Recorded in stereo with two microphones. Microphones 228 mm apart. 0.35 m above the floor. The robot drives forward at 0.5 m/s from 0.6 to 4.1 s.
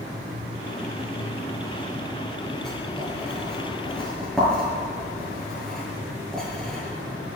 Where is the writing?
5° left (ahead or behind), 5.5 m; by 6.8 s centre (ahead or behind), 6.5 m.